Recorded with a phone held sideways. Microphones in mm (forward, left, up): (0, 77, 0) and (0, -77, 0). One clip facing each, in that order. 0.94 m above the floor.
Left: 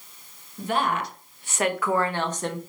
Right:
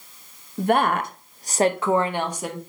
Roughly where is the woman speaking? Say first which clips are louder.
Right 6 dB; right.